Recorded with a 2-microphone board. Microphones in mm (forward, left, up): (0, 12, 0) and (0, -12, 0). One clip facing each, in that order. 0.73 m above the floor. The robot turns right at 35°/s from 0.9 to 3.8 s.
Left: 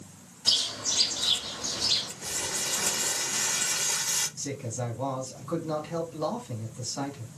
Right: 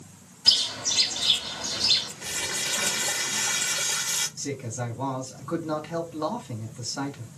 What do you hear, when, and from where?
0.5 s a bird: 125° right, 1.4 m; by 2.1 s 85° right, 1.4 m
2.2 s crumpling: 95° right, 1.1 m; by 4.3 s 40° right, 1.1 m
4.4 s a man speaking: 25° right (ahead or behind), 2 m